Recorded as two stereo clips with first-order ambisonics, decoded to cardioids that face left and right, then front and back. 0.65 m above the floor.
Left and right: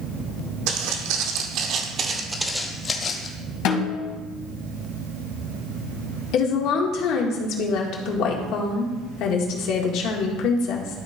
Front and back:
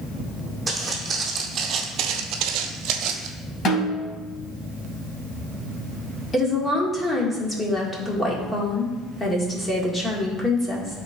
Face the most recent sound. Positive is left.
turn(degrees=80)